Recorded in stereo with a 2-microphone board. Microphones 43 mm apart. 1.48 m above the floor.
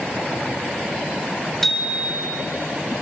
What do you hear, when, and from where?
1.6 s a bicycle bell: 5° left (ahead or behind), 2.5 m